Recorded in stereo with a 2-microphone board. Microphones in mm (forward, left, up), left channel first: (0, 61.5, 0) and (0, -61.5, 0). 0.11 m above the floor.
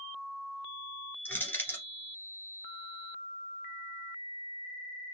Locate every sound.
1.2 s crushing: 15° left (ahead or behind), 1.9 m